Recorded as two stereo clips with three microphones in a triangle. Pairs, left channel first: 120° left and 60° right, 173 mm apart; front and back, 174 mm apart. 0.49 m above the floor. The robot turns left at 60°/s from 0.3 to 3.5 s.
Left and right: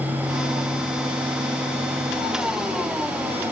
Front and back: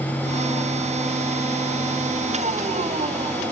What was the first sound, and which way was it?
Only background noise.